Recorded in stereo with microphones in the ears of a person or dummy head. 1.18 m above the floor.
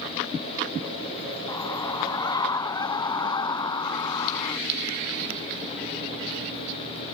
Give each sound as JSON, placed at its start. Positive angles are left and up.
{"t": 1.5, "sound": "a scream", "side_deg": 25}